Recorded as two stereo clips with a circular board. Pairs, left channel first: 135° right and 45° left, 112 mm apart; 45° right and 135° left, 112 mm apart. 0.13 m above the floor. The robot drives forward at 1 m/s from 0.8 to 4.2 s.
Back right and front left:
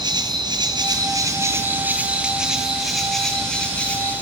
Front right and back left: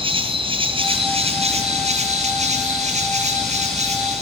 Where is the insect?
95° left, 2.5 m; by 4.2 s 145° left, 4.5 m.